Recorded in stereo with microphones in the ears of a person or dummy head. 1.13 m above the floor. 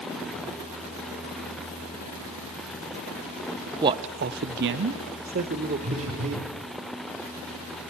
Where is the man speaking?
20° right (ahead or behind), 0.5 m; by 6.5 s 35° right (ahead or behind), 1.6 m.